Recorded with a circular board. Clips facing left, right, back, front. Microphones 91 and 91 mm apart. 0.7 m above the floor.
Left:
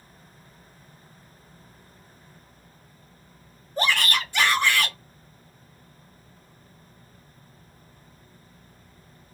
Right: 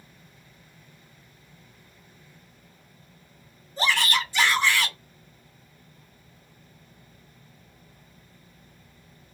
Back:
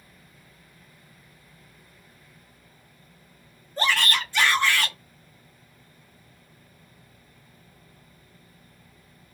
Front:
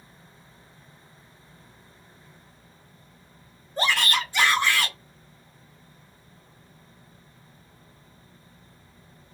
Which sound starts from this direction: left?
A shout, at 3.8 s.